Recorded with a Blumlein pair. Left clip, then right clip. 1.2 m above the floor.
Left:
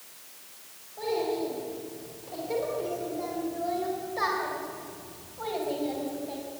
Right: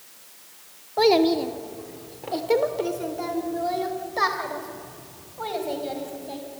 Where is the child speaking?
50° right, 1.7 m; by 6.4 s 15° right, 5 m.